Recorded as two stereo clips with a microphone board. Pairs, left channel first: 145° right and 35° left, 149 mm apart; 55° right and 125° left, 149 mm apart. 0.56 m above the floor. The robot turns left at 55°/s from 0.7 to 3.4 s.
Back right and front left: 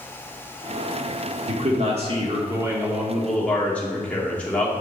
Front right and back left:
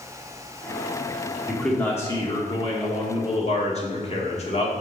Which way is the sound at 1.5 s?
40° left.